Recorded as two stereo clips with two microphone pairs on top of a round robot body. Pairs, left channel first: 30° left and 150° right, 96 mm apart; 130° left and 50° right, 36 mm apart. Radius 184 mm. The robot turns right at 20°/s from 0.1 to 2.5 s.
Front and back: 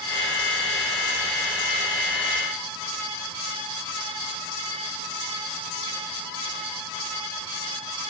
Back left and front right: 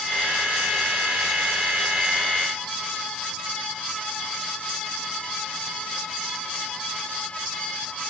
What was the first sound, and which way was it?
Only background noise.